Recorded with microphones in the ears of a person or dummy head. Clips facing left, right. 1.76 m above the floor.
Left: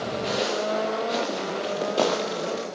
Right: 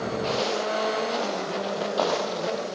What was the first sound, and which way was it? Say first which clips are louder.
Footsteps: left 2 dB; 20° left (ahead or behind).